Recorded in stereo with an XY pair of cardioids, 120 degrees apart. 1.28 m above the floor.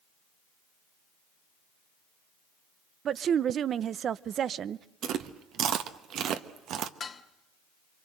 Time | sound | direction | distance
3.0 | a woman speaking | 50° right | 0.7 m
5.0 | chewing | 65° right | 1.3 m
7.0 | dishes clattering | 35° left | 1.6 m